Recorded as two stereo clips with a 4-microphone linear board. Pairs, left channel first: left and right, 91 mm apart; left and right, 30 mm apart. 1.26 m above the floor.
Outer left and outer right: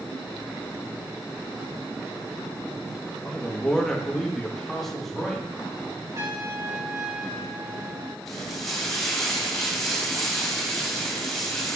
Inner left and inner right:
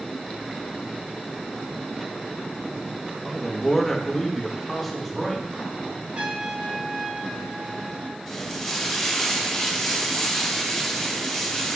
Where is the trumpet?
35° right (ahead or behind), 2.5 m.